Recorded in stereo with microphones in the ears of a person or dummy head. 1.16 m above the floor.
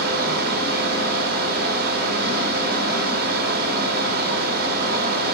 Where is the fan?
50° right (ahead or behind), 3.5 m.